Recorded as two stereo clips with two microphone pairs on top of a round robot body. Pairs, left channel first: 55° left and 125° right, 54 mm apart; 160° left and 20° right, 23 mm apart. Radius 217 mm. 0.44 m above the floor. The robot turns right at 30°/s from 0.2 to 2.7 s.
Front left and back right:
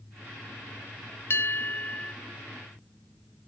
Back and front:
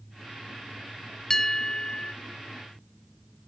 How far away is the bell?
About 0.7 m.